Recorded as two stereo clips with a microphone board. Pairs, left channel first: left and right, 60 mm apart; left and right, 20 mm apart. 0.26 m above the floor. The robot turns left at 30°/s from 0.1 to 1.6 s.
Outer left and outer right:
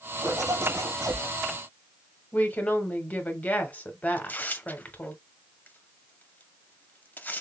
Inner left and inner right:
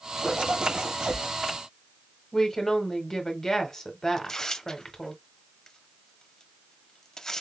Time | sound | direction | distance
0.2 | a zipper | 85° right | 2.5 m
2.3 | a woman speaking | 25° left (ahead or behind) | 1.2 m
4.2 | tearing paper | 30° left (ahead or behind) | 0.5 m